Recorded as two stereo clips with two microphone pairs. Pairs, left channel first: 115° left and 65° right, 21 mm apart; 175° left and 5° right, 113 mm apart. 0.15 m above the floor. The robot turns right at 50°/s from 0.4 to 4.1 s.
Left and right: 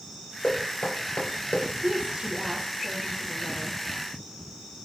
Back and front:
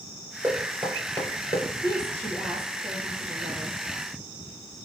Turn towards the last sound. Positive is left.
turn(degrees=-15)